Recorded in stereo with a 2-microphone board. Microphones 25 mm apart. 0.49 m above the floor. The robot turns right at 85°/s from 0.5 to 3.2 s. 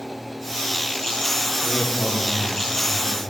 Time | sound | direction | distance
1.6 | a man speaking | 90° left | 8 m